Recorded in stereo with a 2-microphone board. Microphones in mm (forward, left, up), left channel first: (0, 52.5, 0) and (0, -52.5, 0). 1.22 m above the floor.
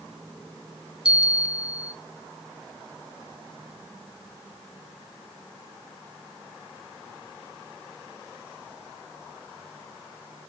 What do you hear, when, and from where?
1.1 s a bell: 10° right (ahead or behind), 0.5 m